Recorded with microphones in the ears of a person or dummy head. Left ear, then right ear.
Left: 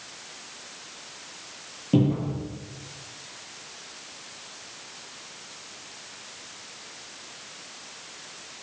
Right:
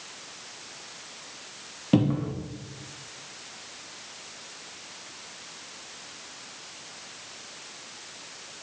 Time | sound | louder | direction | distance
1.9 | a cupboard door | left 1 dB | 55° right (ahead or behind) | 1.4 m